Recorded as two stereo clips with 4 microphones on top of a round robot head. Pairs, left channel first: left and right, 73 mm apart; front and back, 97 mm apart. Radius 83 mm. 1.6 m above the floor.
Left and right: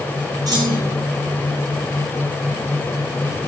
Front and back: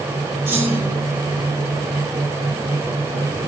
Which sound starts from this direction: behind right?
A clunk, at 0.5 s.